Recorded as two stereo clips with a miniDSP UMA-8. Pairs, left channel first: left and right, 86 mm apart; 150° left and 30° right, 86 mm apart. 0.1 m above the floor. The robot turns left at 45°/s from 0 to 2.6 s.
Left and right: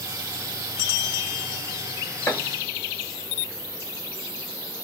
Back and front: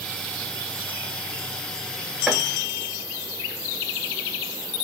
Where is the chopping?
45° left, 1.1 m; by 2.4 s 40° left, 1.1 m.